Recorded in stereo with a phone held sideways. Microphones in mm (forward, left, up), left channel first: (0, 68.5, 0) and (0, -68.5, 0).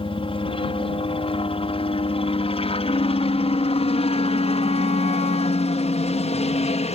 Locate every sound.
0.0 s a helicopter: 40° left (ahead or behind); by 7.0 s 55° left (ahead or behind)
2.8 s a flute: 50° left (ahead or behind)